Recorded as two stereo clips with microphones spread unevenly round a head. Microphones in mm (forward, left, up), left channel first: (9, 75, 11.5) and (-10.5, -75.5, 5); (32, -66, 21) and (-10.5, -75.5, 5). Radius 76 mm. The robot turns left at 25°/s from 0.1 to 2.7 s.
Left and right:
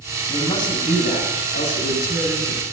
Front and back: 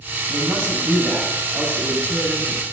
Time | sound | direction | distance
0.3 | a man speaking | 150° left | 6 m